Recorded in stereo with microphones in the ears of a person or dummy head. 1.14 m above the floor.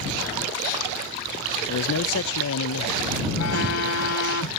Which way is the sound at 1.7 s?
70° left (ahead or behind).